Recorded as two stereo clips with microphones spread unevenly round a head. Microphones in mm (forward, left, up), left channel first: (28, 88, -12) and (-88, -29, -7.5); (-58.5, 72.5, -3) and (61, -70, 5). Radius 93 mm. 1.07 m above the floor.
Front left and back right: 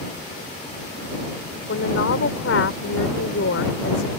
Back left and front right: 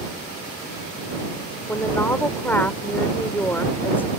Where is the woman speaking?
50° left.